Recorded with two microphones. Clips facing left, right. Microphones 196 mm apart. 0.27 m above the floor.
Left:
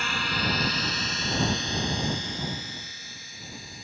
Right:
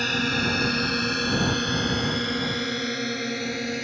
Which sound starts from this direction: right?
A drone, at 0.0 s.